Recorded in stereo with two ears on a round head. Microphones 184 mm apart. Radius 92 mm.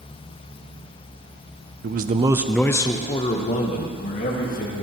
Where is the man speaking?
50° right (ahead or behind), 0.5 m; by 4.8 s 45° left (ahead or behind), 2 m.